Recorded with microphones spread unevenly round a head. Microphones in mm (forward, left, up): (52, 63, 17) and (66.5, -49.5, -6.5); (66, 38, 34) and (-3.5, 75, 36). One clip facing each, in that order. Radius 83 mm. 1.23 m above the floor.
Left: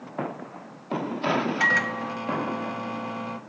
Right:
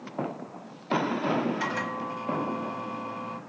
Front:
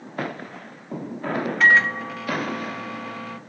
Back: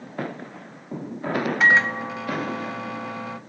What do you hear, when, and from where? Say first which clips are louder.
1.6 s a microwave: left 3 dB, front 2 dB; 80° left, 0.6 m